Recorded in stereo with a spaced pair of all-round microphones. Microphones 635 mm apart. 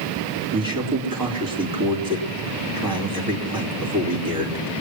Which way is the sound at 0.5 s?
30° right (ahead or behind).